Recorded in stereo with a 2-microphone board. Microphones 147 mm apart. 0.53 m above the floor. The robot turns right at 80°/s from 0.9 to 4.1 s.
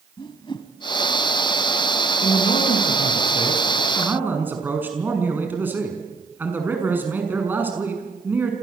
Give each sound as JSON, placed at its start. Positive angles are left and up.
{"t": 0.2, "sound": "a whoosh", "side_deg": 35, "distance_m": 2.0}
{"t": 2.2, "sound": "a man speaking", "azimuth_deg": 40, "distance_m": 6.0}